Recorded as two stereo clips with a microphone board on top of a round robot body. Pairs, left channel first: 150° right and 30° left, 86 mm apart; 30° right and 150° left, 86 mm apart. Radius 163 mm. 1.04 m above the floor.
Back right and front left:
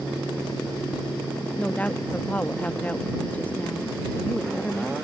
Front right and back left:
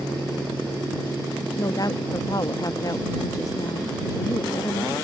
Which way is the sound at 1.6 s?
75° right.